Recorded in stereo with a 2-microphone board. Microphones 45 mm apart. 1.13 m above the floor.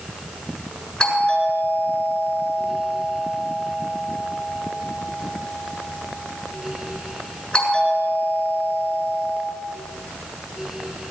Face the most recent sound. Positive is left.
turn(degrees=20)  # may be behind; listen again after turning